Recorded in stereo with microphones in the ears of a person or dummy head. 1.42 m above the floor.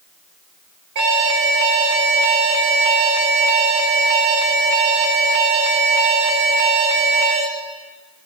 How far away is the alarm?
About 0.9 m.